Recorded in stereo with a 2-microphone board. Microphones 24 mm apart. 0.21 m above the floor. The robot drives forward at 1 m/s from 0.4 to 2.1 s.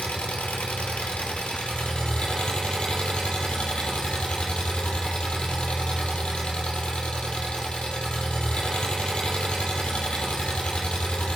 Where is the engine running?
75° left (ahead or behind), 1.6 m; by 11.3 s 50° left (ahead or behind), 2 m.